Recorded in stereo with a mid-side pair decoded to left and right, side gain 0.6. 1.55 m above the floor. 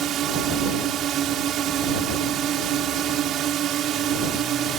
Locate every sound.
0.0 s a drone: 55° right